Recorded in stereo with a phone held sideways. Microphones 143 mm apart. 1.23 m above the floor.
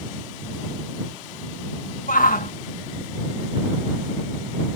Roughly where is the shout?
Left.